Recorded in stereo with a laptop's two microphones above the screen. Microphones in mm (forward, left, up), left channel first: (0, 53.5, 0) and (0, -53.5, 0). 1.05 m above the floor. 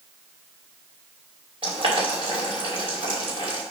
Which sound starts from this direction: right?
Boiling, at 1.6 s.